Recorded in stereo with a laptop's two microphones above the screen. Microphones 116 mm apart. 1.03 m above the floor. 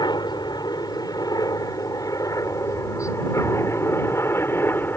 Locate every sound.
0.0 s a helicopter: 35° left (ahead or behind); by 5.0 s 20° left (ahead or behind)